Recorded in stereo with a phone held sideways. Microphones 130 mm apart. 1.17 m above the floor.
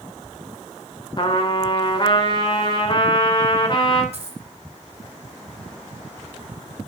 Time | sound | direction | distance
1.2 | a trumpet | 40° left (ahead or behind) | 3 m
4.1 | a dropped coin | 55° right (ahead or behind) | 2.5 m